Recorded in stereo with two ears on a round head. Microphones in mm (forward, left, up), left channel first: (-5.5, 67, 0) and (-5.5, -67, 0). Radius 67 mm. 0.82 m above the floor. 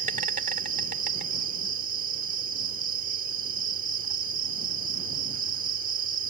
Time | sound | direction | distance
0.0 | an insect | 55° right (ahead or behind) | ?